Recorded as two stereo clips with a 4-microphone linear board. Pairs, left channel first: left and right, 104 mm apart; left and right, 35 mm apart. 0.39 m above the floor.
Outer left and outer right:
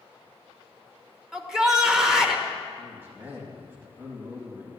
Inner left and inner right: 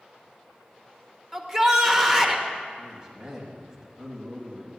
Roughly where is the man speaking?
Centre.